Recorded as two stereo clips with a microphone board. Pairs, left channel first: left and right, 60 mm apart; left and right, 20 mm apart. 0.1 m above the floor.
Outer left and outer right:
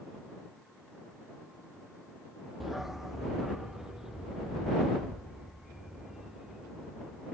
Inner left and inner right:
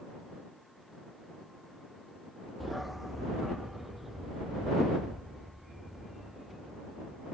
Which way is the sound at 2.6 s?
5° right (ahead or behind).